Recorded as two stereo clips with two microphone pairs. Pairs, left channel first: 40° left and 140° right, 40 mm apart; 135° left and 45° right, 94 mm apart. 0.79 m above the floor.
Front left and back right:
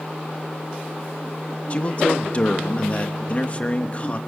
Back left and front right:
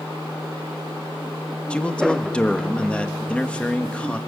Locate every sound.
1.7 s a man speaking: 65° left, 1.1 m